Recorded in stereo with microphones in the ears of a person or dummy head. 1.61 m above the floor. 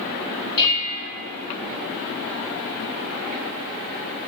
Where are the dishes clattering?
60° left (ahead or behind), 1.8 m.